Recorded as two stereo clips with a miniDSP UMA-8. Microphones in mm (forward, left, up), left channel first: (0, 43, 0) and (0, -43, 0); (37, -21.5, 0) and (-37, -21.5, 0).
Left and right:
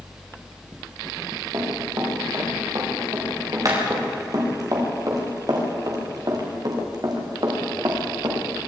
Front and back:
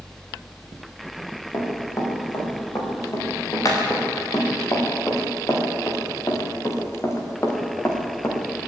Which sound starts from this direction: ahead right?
Running footsteps, at 1.5 s.